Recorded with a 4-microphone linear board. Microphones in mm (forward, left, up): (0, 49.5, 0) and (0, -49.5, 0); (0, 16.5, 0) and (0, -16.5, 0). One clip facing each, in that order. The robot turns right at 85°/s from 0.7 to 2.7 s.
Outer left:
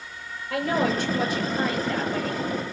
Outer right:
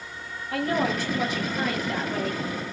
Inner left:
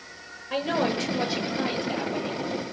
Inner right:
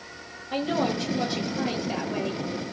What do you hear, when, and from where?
0.5 s a woman speaking: 100° left, 7.5 m; by 2.7 s 90° right, 7.5 m